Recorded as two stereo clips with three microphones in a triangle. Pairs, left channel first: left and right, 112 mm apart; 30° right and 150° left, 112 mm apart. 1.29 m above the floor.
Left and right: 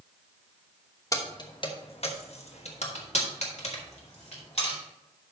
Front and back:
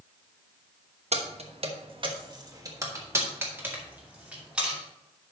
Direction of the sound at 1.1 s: 150° left.